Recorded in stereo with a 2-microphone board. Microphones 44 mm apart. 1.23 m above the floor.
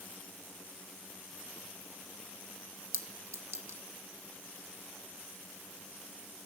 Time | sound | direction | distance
2.9 | a clink | 85° right | 1.3 m